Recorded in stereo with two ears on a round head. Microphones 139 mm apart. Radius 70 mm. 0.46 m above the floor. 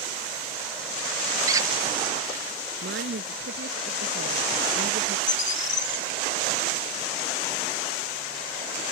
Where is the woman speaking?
85° right.